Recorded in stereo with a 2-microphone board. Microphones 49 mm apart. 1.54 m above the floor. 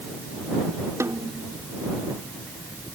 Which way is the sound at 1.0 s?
75° right (ahead or behind).